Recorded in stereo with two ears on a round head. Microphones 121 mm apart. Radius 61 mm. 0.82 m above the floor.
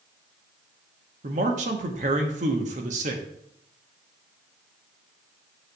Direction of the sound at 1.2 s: 60° right (ahead or behind).